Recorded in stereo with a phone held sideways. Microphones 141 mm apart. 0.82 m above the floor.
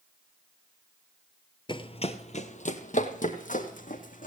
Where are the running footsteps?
35° left (ahead or behind), 1.0 m; by 4.3 s 70° left (ahead or behind), 3 m.